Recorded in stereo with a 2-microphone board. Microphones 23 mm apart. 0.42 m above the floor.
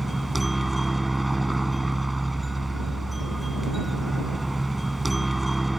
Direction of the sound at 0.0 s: 10° right (ahead or behind).